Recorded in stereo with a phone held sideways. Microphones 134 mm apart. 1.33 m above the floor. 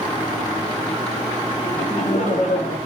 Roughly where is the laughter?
Left.